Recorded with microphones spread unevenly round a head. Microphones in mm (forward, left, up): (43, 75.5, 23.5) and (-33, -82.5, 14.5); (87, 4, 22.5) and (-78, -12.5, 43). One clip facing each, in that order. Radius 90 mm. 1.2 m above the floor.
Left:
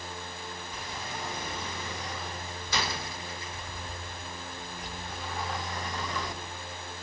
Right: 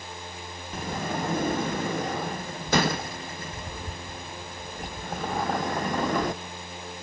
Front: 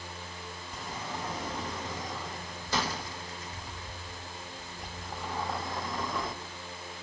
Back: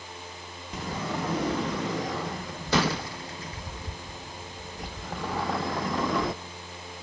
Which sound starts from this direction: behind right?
A sliding door, at 0.7 s.